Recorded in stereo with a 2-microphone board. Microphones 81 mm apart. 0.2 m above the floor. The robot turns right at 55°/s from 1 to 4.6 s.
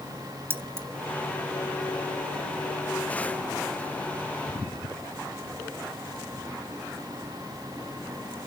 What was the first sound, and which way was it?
Keys jangling, 30° right (ahead or behind).